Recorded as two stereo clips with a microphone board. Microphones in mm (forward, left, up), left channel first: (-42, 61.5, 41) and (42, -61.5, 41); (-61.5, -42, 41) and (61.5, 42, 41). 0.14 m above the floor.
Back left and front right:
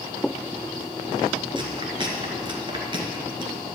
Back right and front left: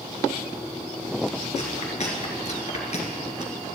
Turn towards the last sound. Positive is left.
turn(degrees=-110)